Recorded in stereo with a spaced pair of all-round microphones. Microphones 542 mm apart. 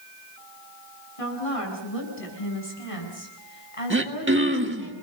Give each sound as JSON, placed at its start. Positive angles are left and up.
{"t": 1.2, "sound": "a woman speaking", "side_deg": 90, "distance_m": 7.5}
{"t": 3.9, "sound": "throat clearing", "side_deg": -20, "distance_m": 1.7}